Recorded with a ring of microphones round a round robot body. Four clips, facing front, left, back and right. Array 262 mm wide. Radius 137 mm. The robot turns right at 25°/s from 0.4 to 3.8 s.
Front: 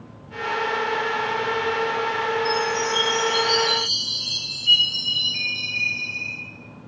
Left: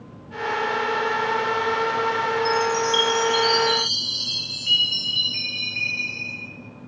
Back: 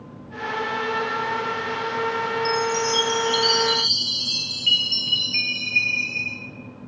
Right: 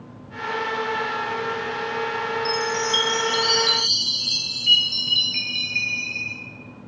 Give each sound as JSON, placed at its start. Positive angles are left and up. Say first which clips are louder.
{"t": 2.5, "sound": "a chime", "louder": "left 3 dB, even", "azimuth_deg": -175, "distance_m": 0.5}